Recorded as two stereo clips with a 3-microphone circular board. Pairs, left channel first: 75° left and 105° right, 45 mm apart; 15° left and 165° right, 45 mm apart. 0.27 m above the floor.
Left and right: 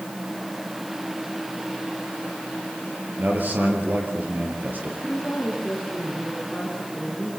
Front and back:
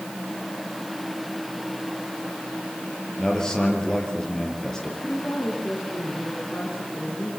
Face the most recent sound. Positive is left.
turn(degrees=15)